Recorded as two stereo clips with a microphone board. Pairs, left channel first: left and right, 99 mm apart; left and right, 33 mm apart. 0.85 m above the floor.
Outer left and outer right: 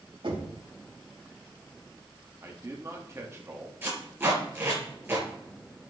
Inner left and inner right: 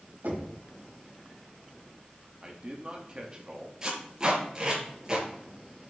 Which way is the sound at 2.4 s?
30° right (ahead or behind).